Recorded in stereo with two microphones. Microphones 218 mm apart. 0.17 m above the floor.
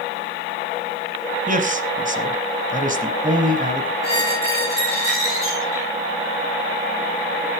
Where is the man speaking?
35° right (ahead or behind), 1.5 m.